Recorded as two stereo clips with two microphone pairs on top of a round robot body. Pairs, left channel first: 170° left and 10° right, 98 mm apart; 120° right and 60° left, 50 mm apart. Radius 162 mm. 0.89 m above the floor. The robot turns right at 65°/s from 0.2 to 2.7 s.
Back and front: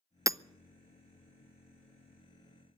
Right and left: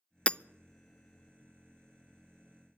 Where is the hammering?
65° right, 0.6 m; by 0.4 s 60° right, 0.6 m.